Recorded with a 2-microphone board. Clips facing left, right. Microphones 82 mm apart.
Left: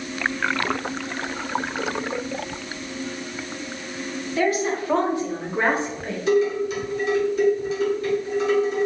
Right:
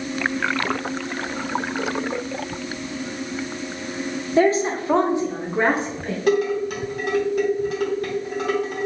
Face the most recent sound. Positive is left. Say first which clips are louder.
# even
turn(degrees=-55)  # may be behind; listen again after turning